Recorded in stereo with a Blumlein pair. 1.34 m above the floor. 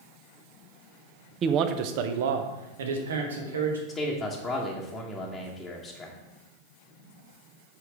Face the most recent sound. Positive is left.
turn(degrees=10)